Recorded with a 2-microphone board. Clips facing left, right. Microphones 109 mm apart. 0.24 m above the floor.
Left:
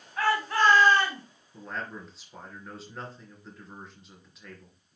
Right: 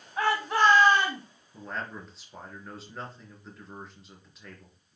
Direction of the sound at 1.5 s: Centre (ahead or behind).